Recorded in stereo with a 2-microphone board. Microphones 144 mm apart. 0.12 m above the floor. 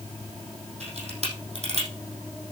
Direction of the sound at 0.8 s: 50° right (ahead or behind).